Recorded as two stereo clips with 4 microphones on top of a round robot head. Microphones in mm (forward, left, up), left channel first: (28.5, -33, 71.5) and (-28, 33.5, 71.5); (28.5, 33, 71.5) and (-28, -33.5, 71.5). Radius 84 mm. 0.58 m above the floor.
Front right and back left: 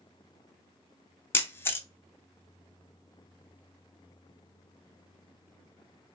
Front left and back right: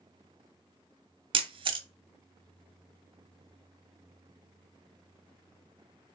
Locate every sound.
1.3 s a camera shutter: 115° right, 0.7 m